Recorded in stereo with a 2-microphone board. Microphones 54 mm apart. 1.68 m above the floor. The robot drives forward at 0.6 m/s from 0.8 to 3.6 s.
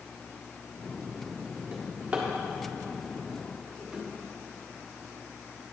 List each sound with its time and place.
1.7 s a drawer: 20° right (ahead or behind), 1.3 m; by 4.0 s 15° right (ahead or behind), 2.0 m